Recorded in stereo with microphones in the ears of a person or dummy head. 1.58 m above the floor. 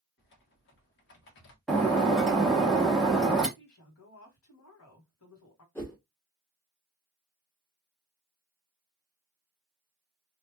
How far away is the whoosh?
About 1.1 m.